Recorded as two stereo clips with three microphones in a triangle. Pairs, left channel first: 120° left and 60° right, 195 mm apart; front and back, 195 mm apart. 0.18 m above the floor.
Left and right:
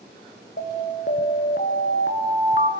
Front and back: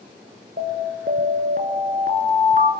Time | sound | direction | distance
0.6 | an alarm | 145° left | 1.4 m